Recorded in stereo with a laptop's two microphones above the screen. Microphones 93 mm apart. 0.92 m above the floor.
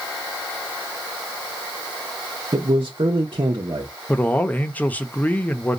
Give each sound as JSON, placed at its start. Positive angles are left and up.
{"t": 2.5, "sound": "a man speaking", "side_deg": -70, "distance_m": 0.8}
{"t": 4.1, "sound": "a man speaking", "side_deg": 15, "distance_m": 0.9}